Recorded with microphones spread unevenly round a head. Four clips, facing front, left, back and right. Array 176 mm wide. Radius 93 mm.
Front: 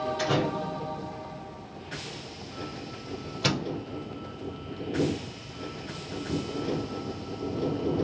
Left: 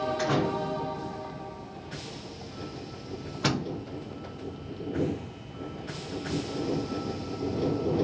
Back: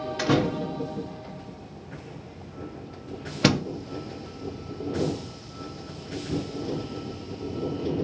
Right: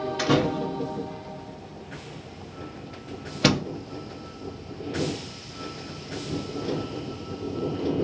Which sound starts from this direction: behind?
A door slam, at 0.2 s.